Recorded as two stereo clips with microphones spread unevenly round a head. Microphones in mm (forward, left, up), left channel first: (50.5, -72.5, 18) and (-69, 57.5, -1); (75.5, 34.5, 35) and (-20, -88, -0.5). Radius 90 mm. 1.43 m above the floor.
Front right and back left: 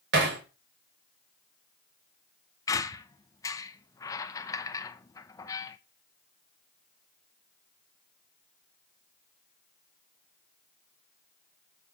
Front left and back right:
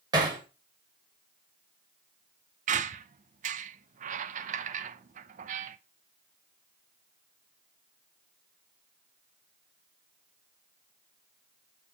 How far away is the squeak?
About 0.6 m.